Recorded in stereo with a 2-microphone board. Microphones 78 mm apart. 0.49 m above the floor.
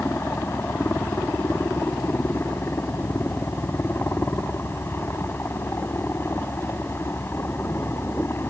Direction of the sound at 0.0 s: 30° left (ahead or behind).